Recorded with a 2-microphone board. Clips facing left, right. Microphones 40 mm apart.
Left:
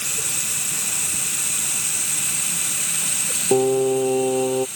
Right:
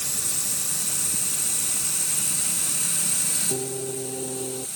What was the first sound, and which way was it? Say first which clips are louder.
Running water: left 5 dB; 60° left (ahead or behind).